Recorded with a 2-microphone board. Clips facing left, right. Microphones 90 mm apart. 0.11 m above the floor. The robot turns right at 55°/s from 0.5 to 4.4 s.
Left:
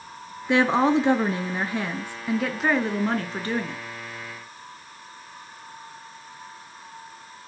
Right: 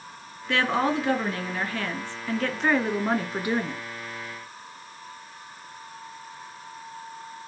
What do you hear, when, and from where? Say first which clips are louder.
0.5 s a woman speaking: left 5 dB; 15° left (ahead or behind), 1.1 m; by 3.8 s 20° right (ahead or behind), 1.1 m